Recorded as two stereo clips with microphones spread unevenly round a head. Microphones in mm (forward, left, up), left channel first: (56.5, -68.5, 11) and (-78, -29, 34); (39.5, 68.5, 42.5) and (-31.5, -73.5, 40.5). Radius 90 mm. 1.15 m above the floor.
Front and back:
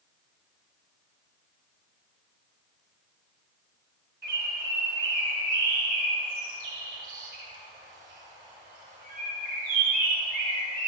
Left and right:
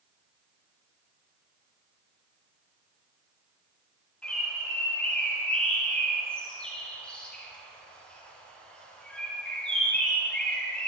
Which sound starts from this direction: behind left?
A bird, at 4.2 s.